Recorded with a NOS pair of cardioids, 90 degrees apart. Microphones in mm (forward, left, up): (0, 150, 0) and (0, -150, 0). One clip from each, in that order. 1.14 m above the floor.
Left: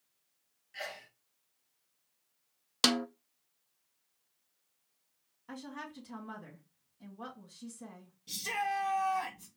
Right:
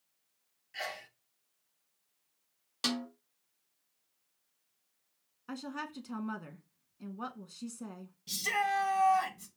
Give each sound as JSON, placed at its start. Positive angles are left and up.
{"t": 0.7, "sound": "a sneeze", "azimuth_deg": -15, "distance_m": 0.7}
{"t": 2.8, "sound": "a snare drum", "azimuth_deg": 45, "distance_m": 0.6}
{"t": 5.5, "sound": "a woman speaking", "azimuth_deg": -40, "distance_m": 1.7}
{"t": 8.3, "sound": "a shout", "azimuth_deg": -25, "distance_m": 1.5}